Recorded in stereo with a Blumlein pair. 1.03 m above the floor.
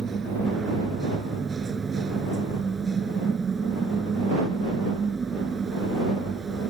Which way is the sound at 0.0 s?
15° right.